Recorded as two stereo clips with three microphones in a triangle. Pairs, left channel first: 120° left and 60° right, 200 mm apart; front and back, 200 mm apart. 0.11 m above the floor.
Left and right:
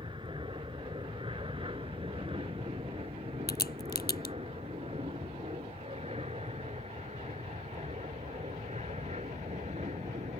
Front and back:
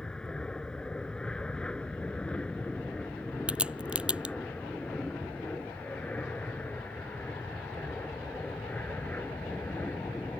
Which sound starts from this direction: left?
A crack, at 3.5 s.